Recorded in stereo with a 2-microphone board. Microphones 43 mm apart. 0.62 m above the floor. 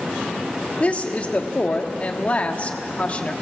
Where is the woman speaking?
30° left (ahead or behind), 1.2 m.